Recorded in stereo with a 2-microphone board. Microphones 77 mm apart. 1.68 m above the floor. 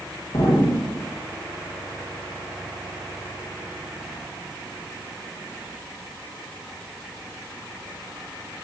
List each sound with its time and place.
0.3 s an explosion: 60° left (ahead or behind), 3 m